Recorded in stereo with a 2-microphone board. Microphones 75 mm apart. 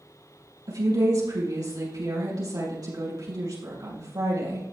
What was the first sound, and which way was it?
A woman speaking, 50° right (ahead or behind).